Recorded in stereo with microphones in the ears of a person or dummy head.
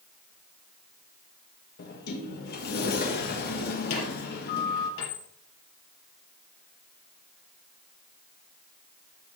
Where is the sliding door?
50° left (ahead or behind), 1.7 m.